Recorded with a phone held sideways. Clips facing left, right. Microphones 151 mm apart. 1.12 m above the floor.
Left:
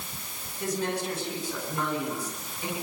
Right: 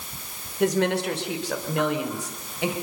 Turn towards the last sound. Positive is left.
turn(degrees=-85)